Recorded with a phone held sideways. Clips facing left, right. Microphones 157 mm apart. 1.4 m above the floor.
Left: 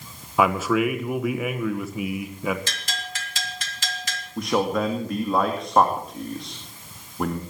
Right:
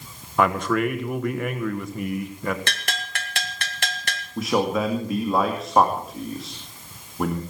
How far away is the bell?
About 2 m.